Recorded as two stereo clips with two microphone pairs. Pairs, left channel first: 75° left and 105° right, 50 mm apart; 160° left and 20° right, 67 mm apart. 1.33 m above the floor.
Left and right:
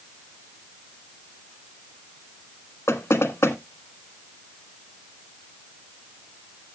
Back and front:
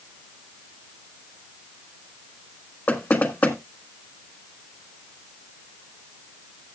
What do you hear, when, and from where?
2.9 s knocking: 100° left, 1.5 m